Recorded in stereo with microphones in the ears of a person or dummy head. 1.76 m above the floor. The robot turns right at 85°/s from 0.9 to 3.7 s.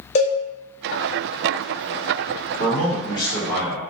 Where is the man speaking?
100° left, 1.4 m; by 3.8 s 165° right, 1.4 m.